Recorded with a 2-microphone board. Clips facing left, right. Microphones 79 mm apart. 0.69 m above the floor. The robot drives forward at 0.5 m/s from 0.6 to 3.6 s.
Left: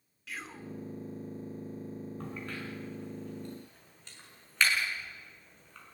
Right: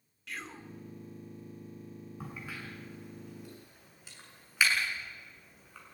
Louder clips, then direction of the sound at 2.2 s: Even; 10° right (ahead or behind).